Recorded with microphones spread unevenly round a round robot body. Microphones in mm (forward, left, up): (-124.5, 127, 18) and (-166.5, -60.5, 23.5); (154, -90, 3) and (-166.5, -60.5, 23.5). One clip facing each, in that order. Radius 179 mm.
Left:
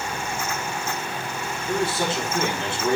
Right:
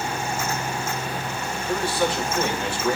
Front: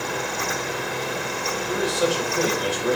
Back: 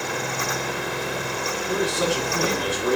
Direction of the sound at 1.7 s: 140° left.